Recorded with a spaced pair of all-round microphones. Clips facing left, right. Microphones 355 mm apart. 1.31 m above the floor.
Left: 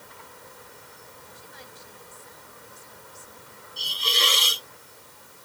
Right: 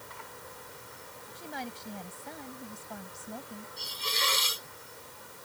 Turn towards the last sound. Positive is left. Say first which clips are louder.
# left 9 dB
turn(degrees=85)